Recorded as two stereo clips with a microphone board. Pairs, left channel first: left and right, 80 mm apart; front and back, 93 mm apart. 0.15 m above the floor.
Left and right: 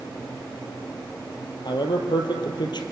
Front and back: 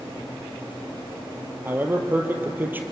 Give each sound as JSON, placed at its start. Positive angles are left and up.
{"t": 1.6, "sound": "a man speaking", "azimuth_deg": 110, "distance_m": 3.0}